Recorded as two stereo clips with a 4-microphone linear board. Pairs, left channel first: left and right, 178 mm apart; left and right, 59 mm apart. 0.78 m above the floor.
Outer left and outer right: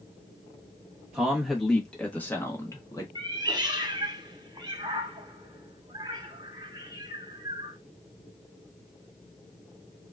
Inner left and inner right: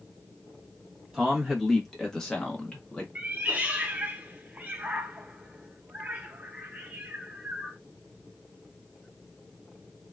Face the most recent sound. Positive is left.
turn(degrees=-25)  # may be behind; listen again after turning